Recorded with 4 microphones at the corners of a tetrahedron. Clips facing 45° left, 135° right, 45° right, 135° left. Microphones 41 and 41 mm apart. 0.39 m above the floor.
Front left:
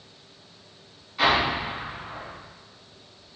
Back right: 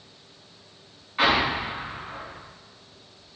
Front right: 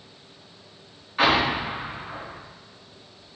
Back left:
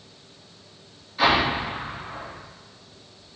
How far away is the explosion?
About 2.5 m.